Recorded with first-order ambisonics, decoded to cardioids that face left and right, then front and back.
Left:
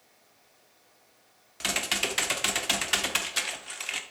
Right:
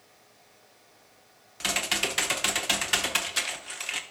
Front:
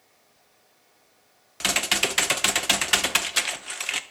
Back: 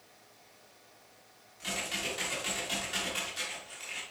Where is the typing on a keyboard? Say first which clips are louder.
Right 1 dB, front 12 dB; straight ahead, 0.6 m.